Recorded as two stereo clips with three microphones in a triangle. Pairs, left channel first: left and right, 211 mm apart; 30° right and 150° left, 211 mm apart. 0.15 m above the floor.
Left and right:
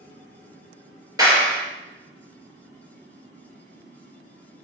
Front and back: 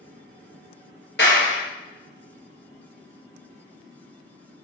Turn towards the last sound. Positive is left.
turn(degrees=-20)